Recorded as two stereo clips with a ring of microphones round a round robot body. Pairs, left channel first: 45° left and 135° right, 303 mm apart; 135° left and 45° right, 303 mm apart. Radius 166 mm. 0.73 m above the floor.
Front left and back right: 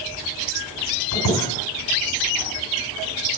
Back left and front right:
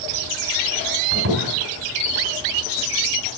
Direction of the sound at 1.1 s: 10° left.